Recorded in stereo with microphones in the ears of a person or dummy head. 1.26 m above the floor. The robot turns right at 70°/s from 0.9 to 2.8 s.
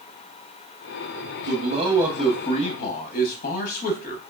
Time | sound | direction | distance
1.5 | a man speaking | 50° right | 0.6 m